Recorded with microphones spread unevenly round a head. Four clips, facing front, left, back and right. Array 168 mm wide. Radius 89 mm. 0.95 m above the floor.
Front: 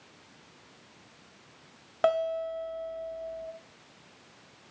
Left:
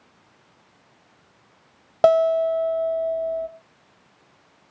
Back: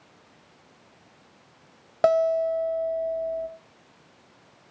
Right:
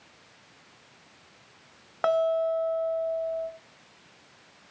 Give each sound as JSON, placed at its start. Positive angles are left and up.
{"t": 2.0, "sound": "a guitar", "azimuth_deg": 110, "distance_m": 0.9}